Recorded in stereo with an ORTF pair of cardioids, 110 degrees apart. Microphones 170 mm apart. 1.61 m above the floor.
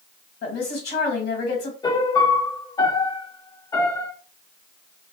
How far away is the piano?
About 0.8 m.